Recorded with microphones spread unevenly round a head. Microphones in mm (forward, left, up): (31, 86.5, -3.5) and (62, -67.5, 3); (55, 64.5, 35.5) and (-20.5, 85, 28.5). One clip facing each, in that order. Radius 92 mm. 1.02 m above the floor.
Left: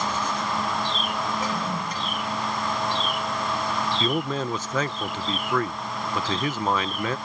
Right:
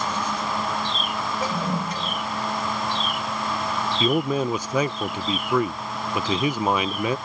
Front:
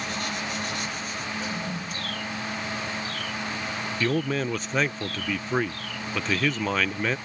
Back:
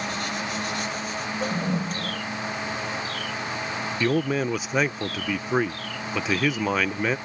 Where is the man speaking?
140° right.